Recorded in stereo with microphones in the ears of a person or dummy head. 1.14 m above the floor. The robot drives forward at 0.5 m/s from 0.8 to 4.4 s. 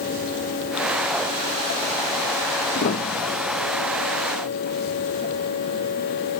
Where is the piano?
50° left (ahead or behind); by 3.7 s 30° left (ahead or behind).